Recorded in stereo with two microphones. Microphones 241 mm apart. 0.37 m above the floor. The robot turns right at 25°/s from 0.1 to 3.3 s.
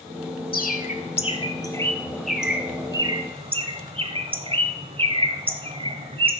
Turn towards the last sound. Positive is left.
turn(degrees=-25)  # may be behind; listen again after turning